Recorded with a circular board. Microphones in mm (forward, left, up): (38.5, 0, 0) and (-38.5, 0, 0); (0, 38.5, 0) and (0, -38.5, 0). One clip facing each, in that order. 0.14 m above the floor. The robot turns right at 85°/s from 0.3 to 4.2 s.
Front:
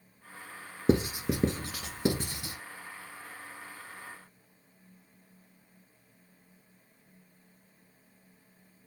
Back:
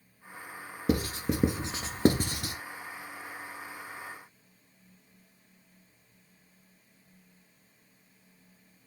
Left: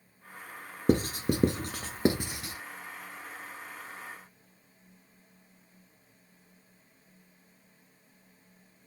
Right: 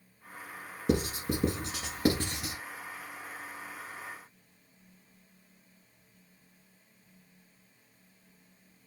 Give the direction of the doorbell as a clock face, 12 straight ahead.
I don't hear a doorbell.